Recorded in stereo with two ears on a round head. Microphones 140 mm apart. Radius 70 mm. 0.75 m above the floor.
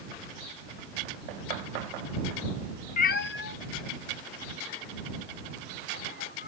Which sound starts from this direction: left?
A cat meowing, at 3.0 s.